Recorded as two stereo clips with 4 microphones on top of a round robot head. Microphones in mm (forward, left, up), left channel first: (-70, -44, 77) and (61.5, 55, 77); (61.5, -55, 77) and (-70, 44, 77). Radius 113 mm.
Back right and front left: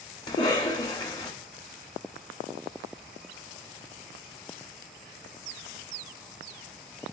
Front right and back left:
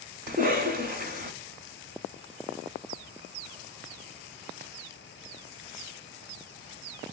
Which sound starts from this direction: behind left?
A cough, at 0.3 s.